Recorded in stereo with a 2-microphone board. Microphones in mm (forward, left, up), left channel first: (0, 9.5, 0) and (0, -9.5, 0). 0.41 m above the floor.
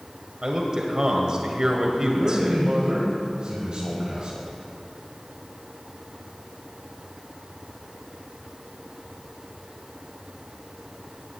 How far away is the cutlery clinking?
I don't hear cutlery clinking.